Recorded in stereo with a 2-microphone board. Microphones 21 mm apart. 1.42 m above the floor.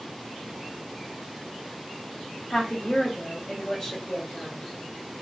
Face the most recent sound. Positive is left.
turn(degrees=30)  # may be behind; listen again after turning